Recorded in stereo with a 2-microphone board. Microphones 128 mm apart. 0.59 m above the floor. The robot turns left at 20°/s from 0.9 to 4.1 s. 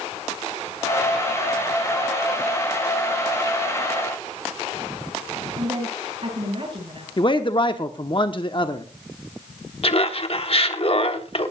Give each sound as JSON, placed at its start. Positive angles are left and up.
{"t": 5.6, "sound": "a woman speaking", "side_deg": -50, "distance_m": 9.5}
{"t": 7.2, "sound": "a man speaking", "side_deg": 40, "distance_m": 0.9}
{"t": 9.8, "sound": "laughter", "side_deg": 50, "distance_m": 1.3}